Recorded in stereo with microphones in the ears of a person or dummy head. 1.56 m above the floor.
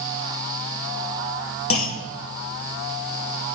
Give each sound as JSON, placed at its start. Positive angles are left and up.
{"t": 1.7, "sound": "a clunk", "side_deg": 85, "distance_m": 1.4}